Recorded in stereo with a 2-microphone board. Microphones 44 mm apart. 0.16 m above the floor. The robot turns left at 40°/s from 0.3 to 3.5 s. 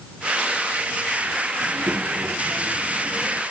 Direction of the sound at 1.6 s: 80° right.